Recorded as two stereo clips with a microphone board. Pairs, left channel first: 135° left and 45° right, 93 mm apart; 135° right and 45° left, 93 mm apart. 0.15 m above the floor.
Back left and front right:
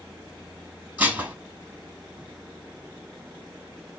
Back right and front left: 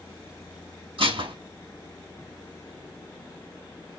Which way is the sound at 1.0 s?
30° left.